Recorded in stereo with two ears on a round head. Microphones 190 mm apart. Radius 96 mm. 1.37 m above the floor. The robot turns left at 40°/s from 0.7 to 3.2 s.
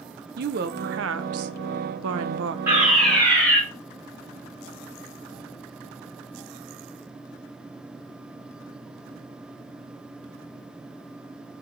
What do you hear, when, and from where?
0.4 s a woman speaking: 45° right, 0.8 m; by 2.6 s 120° right, 0.8 m
2.7 s a fire alarm: 10° right (ahead or behind), 5 m; by 3.6 s 10° left (ahead or behind), 5 m